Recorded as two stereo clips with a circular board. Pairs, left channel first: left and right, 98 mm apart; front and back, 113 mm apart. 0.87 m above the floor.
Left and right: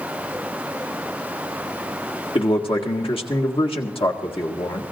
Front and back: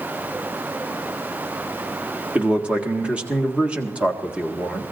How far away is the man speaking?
About 1.7 m.